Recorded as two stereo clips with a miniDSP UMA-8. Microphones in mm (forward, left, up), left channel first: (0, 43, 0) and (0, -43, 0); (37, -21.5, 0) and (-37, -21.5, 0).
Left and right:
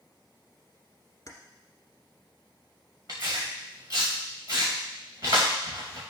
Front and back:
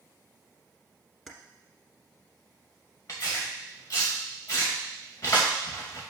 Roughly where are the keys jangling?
Left.